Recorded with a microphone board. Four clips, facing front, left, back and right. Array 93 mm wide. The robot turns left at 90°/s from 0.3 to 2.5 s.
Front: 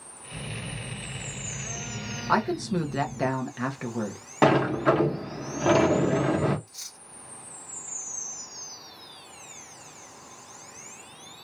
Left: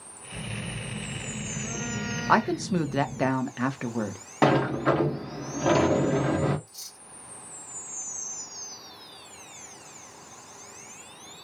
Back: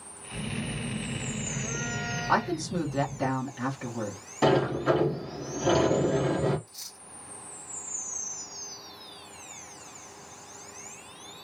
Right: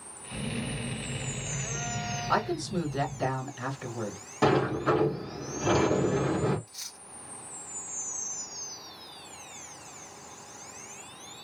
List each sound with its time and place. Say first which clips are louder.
0.3 s a phone buzzing: right 3 dB, back 4 dB; 70° right, 1.6 m; by 3.3 s 95° left, 1.6 m
2.3 s a woman speaking: left 6 dB, front 2 dB; 85° left, 0.9 m; by 4.2 s 65° left, 0.9 m
4.4 s a sliding door: left 2 dB, front 3 dB; 35° left, 1.0 m
6.7 s cutlery clinking: right 1 dB, even; 55° right, 0.8 m